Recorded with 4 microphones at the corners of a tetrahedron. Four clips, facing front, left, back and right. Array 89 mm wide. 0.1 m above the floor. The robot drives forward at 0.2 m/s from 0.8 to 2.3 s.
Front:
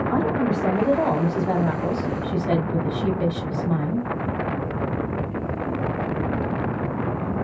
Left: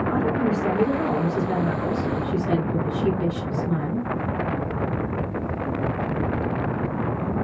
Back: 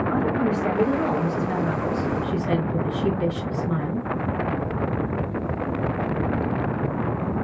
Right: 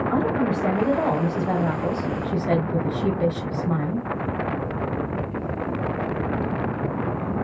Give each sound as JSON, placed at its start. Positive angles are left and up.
{"t": 0.1, "sound": "a woman speaking", "azimuth_deg": -35, "distance_m": 1.2}